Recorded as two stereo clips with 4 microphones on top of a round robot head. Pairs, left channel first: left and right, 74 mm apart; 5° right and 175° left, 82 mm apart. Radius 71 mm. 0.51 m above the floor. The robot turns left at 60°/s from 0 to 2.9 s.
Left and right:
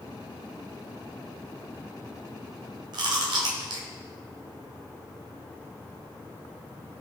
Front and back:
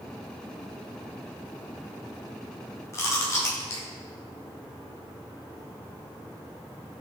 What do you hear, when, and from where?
2.9 s chewing: 65° right, 2.5 m